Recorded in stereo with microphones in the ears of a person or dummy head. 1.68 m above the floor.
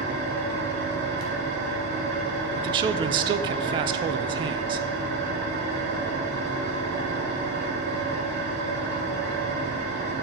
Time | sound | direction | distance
0.0 | an engine running | 65° right (ahead or behind) | 3 m
2.5 | a man speaking | 30° right (ahead or behind) | 0.6 m